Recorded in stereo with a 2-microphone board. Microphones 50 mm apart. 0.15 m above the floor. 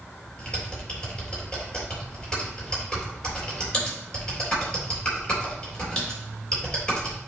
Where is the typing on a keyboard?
20° left (ahead or behind), 3.5 m.